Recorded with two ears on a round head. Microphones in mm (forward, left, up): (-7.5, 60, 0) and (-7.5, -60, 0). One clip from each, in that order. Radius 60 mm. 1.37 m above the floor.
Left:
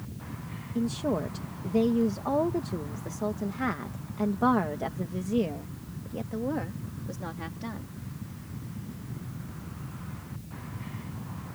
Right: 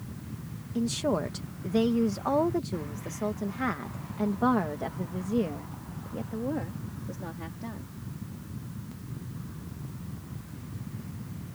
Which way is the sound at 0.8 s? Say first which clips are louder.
Right 1 dB; 60° right (ahead or behind).